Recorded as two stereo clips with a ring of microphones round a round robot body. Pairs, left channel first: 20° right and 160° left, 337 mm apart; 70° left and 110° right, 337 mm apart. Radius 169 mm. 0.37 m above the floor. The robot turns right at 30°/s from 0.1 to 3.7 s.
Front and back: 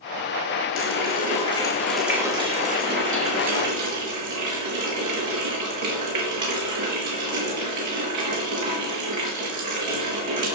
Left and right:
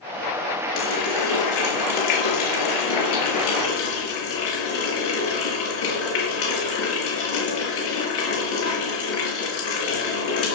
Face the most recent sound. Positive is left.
turn(degrees=120)